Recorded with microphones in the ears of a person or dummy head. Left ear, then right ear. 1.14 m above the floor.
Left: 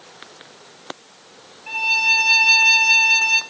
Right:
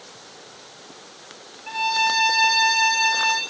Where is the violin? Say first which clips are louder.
Left 4 dB; 25° left (ahead or behind), 1.6 m.